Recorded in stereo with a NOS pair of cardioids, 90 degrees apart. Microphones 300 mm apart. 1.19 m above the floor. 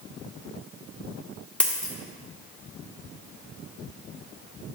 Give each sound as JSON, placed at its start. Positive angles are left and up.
{"t": 1.6, "sound": "a dropped coin", "azimuth_deg": 5, "distance_m": 1.6}